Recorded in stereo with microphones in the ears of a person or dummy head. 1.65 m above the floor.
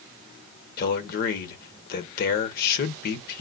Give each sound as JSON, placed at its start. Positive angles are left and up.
{"t": 0.8, "sound": "a man speaking", "side_deg": 55, "distance_m": 1.3}